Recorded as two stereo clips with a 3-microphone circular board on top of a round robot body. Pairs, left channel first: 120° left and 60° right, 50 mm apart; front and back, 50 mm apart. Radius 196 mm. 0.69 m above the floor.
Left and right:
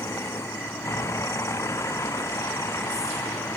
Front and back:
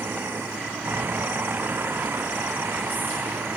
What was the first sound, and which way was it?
A vehicle, 135° left.